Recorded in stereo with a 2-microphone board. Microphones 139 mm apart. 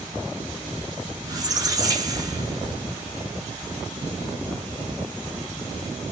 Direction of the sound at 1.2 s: 30° right (ahead or behind).